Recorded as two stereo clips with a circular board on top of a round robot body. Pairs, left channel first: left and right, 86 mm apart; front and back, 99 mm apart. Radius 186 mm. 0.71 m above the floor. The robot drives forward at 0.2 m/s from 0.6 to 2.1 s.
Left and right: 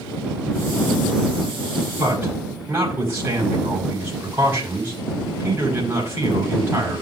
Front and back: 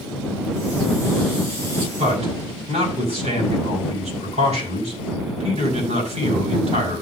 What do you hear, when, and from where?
2.0 s a man speaking: 165° right, 5.5 m